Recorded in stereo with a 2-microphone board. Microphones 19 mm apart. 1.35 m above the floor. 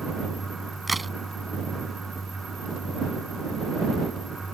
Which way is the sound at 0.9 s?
Centre (ahead or behind).